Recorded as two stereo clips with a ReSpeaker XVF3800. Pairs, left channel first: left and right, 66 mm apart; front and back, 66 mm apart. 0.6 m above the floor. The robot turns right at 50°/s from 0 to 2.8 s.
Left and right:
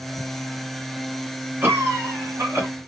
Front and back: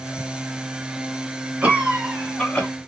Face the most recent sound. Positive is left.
turn(degrees=-65)